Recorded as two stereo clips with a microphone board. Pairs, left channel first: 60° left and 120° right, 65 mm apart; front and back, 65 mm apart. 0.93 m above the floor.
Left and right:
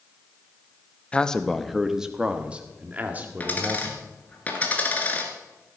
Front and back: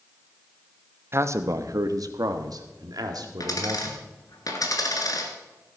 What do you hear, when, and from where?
1.1 s a man speaking: 135° left, 0.8 m; by 4.0 s 175° right, 2.5 m
3.4 s a dropped coin: straight ahead, 1.9 m